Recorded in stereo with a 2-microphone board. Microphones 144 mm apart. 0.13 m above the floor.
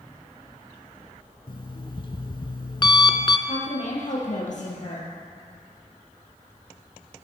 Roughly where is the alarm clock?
Left.